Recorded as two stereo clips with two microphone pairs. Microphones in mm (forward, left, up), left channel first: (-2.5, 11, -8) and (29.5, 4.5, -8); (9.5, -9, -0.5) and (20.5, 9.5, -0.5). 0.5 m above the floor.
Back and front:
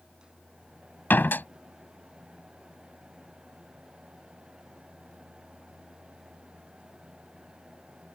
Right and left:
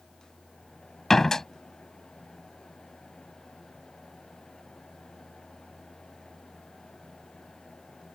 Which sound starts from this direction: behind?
A door slam, at 1.1 s.